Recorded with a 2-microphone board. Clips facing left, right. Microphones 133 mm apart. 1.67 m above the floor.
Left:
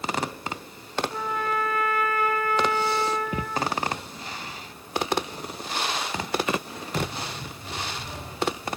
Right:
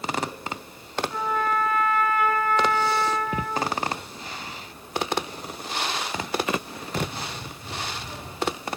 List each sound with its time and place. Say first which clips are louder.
1.1 s a trumpet: right 6 dB; 40° left (ahead or behind), 4.5 m